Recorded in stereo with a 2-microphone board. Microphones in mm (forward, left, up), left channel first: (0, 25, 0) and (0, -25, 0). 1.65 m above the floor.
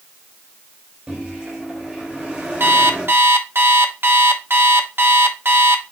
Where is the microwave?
20° right (ahead or behind), 3.5 m.